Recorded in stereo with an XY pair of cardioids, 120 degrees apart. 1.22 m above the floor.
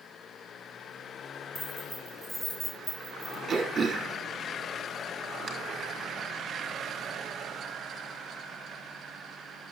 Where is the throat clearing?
35° right, 2.5 m.